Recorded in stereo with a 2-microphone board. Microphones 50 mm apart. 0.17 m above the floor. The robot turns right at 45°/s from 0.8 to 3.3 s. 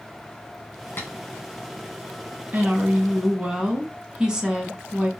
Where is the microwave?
I don't hear a microwave.